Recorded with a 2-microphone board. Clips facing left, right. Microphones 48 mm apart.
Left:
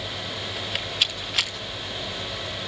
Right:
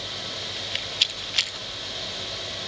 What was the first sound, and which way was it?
A rattle, 5° left (ahead or behind).